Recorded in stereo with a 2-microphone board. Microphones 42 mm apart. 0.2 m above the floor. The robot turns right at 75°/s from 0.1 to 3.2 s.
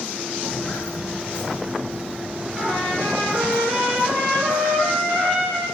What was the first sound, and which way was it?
Footsteps, 60° left (ahead or behind).